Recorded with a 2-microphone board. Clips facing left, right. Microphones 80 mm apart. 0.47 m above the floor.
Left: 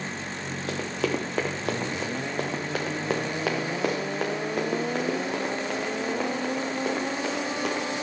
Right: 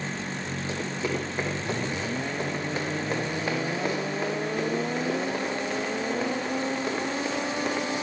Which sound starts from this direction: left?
Running footsteps, at 0.7 s.